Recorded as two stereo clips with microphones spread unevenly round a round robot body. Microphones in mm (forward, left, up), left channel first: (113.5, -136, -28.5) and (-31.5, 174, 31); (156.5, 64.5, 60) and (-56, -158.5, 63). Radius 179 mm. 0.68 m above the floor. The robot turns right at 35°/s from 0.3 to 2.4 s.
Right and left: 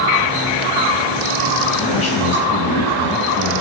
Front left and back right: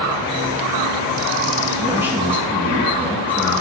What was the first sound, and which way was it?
A man speaking, 60° right.